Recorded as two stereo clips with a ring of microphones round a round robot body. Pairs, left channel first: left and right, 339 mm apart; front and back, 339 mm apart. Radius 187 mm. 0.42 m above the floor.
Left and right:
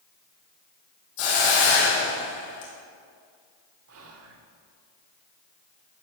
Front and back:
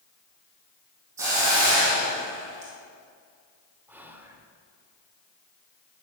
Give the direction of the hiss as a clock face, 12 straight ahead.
9 o'clock.